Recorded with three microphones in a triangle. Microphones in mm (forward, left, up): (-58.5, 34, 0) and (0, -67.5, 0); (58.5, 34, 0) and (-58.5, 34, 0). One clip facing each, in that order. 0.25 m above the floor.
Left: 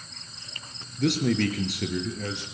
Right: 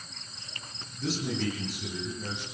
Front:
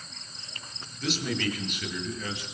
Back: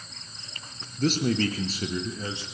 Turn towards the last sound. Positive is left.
turn(degrees=115)